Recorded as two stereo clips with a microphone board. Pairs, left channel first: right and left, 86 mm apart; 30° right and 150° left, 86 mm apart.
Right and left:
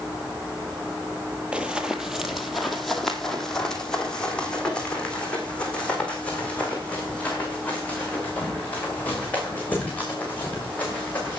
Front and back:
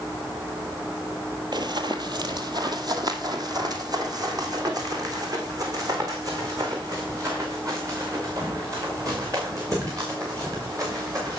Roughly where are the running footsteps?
Behind.